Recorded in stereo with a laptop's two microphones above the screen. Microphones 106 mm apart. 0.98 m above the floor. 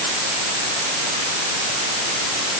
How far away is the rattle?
I don't hear a rattle.